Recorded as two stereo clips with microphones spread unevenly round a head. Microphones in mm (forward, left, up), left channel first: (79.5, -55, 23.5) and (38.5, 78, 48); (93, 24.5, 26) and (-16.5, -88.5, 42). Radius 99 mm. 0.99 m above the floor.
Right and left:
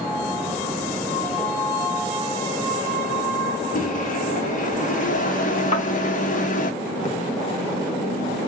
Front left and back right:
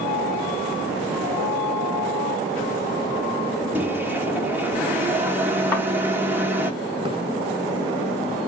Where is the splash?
75° right, 1.4 m.